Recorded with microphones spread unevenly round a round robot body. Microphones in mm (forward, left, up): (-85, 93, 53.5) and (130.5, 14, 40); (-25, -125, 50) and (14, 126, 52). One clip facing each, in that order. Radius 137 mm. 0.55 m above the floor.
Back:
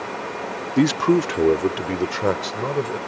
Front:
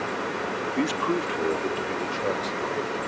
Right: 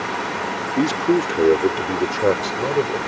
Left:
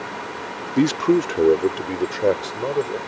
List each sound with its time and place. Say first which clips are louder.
0.8 s a man speaking: back 10 dB, left 1 dB; 150° left; by 3.0 s 170° right